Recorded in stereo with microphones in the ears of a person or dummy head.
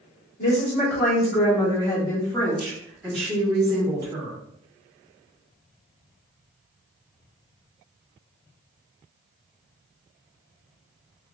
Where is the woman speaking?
55° left (ahead or behind), 1.6 m; by 4.4 s 25° right (ahead or behind), 1.6 m.